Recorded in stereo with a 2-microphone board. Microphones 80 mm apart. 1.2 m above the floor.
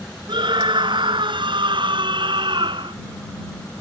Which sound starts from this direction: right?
A scream, at 0.3 s.